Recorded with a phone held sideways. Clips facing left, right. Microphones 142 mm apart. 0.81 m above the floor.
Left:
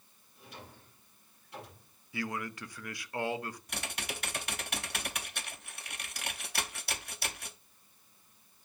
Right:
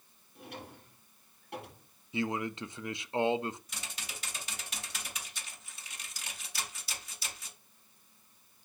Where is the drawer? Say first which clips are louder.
Right 5 dB; 75° right (ahead or behind), 5 m.